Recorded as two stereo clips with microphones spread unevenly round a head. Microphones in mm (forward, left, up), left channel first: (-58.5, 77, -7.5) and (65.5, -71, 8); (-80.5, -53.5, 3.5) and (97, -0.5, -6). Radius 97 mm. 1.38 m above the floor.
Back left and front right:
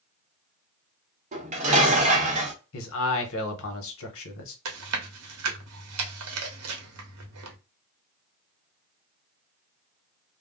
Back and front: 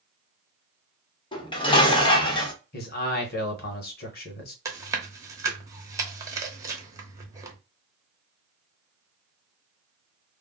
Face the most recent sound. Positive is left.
turn(degrees=-60)